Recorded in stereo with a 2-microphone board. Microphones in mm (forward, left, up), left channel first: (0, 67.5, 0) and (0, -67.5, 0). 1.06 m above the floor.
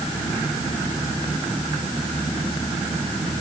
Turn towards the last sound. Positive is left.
No sound to turn to.